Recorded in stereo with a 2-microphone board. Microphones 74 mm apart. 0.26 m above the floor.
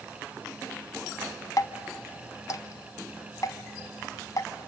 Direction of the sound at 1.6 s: 55° left (ahead or behind).